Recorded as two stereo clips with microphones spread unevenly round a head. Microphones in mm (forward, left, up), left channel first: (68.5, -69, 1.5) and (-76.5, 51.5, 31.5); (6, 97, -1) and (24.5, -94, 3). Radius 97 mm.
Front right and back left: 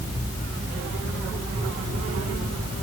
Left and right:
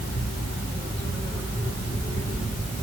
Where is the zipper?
No zipper in this recording.